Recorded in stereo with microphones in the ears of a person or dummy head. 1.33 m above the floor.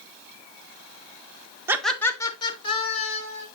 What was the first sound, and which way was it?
Laughter, 10° right (ahead or behind).